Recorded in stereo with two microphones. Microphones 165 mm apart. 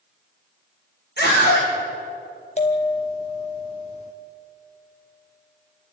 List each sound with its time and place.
1.2 s a scream: 70° left (ahead or behind), 5.5 m
2.6 s a bell: 40° left (ahead or behind), 1.8 m